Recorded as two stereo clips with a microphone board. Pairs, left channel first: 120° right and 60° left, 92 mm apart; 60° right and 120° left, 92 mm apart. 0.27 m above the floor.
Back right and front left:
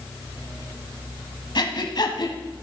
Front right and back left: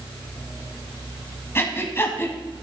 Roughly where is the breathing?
Behind right.